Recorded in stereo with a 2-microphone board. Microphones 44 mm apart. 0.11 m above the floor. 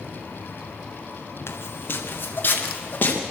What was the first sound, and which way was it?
Footsteps, 65° left (ahead or behind).